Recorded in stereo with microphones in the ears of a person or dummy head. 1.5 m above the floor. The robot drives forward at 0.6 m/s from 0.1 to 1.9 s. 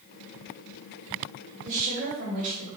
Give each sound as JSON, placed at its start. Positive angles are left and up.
{"t": 1.6, "sound": "a woman speaking", "side_deg": -45, "distance_m": 3.5}